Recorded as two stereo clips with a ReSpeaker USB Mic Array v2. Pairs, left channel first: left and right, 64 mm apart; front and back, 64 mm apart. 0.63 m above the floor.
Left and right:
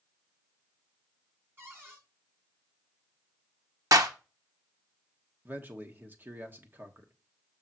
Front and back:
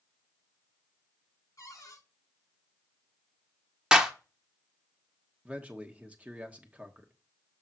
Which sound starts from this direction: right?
A clap, at 3.9 s.